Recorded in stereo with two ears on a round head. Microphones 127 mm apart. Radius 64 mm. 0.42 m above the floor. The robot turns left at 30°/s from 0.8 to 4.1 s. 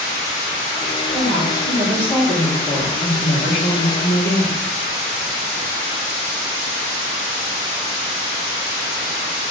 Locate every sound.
1.1 s a woman speaking: 165° right, 4.5 m; by 4.7 s 105° left, 4.5 m